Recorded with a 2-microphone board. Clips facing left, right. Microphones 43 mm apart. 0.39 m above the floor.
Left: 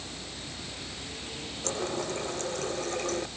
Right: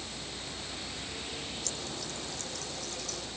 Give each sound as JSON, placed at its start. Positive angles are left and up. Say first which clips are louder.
{"t": 1.6, "sound": "a running tap", "louder": "left 8 dB", "side_deg": 40}